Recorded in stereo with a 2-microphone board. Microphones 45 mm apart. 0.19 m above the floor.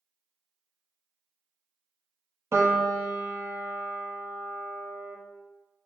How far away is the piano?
About 1.2 m.